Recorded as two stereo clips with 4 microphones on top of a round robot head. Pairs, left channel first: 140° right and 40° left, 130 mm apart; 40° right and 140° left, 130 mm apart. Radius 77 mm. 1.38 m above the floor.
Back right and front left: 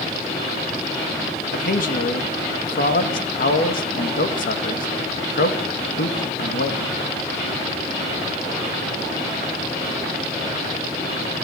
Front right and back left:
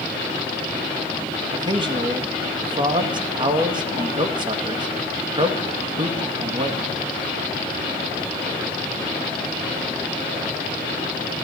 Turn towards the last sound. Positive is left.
turn(degrees=-160)